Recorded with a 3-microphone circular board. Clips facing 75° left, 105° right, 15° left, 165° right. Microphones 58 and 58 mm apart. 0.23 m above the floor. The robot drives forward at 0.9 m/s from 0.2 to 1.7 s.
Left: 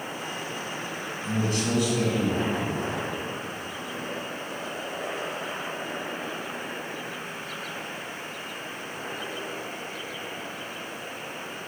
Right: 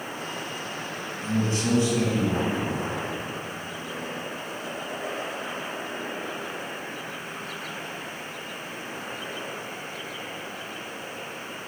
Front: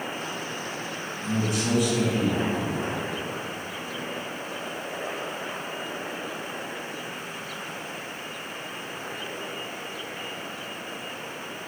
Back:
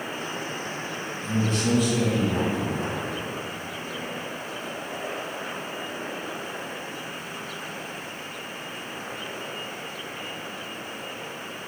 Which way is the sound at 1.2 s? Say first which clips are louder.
Right 2 dB, back 1 dB; 60° right.